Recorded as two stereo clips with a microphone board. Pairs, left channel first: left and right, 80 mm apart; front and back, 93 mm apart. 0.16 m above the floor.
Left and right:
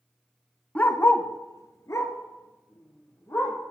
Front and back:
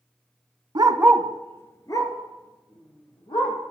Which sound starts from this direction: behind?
A dog barking, at 0.8 s.